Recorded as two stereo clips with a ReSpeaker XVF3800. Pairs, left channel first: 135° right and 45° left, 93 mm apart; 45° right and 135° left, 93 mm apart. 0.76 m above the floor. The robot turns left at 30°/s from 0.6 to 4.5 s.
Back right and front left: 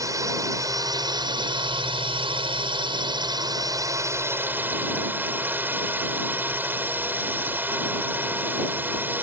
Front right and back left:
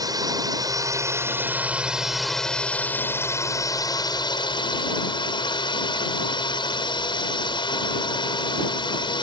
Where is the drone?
95° left; by 9.2 s 20° right.